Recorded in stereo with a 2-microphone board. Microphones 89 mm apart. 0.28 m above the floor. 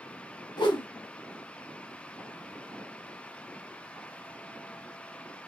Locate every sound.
0.6 s a whoosh: 65° left (ahead or behind), 1.0 m